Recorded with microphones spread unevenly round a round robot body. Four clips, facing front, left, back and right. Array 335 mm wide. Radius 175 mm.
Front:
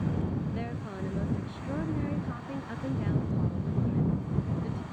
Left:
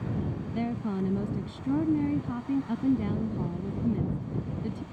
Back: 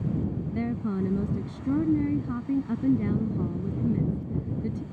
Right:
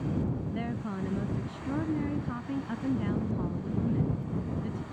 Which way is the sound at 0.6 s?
160° left.